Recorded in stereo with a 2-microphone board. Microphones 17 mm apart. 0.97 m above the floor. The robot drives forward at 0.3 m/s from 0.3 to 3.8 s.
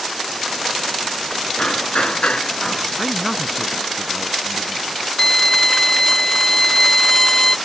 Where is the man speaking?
5° right (ahead or behind).